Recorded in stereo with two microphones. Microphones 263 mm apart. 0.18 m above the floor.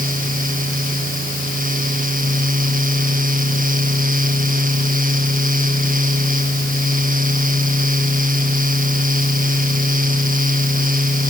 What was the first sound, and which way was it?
Only background noise.